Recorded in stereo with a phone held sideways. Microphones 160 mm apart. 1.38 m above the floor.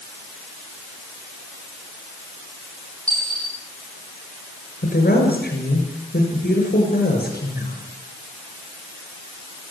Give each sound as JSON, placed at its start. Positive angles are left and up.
{"t": 3.1, "sound": "a dropped coin", "side_deg": 10, "distance_m": 9.0}
{"t": 4.8, "sound": "a woman speaking", "side_deg": 80, "distance_m": 7.0}